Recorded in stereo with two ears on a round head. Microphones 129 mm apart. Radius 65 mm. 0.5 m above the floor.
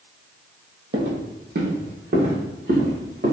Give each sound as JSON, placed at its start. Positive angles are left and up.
{"t": 0.9, "sound": "footsteps", "side_deg": -55, "distance_m": 1.0}